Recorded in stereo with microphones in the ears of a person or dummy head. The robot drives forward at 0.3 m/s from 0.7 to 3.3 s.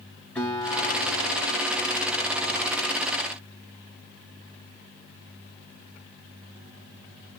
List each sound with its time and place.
0.3 s a guitar: centre (ahead or behind), 3.5 m